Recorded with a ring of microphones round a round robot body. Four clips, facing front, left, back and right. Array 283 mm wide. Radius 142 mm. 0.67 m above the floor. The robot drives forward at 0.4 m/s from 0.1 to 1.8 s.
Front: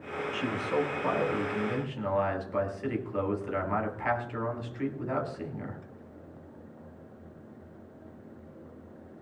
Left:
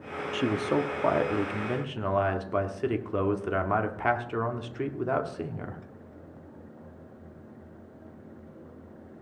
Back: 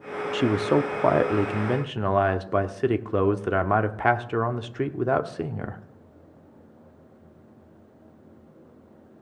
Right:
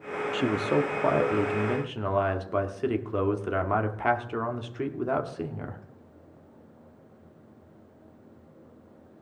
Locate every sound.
0.3 s a man speaking: 175° right, 0.8 m; by 5.8 s straight behind, 1.3 m